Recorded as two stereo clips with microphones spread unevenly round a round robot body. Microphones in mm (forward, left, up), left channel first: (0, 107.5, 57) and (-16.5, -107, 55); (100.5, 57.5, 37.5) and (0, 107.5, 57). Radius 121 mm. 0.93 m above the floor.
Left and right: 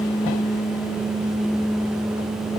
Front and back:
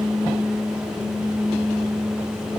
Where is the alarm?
No alarm in this recording.